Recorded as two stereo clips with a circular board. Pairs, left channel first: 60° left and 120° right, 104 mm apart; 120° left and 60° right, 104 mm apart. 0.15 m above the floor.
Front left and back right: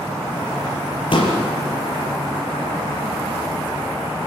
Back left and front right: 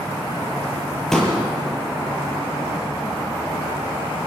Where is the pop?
35° left, 4.5 m.